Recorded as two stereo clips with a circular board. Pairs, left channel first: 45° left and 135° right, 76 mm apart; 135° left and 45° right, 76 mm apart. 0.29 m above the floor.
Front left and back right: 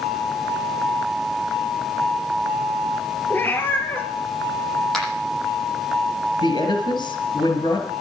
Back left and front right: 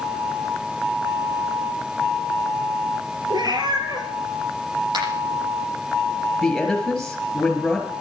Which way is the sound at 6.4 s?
45° left.